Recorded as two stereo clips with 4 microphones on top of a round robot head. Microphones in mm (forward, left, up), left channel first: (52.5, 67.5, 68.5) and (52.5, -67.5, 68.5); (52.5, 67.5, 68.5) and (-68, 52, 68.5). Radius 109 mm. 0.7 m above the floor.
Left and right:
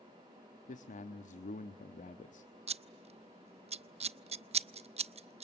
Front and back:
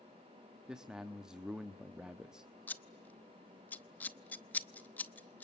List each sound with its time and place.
0.7 s a man speaking: 105° left, 1.1 m
2.7 s scissors: 65° right, 0.8 m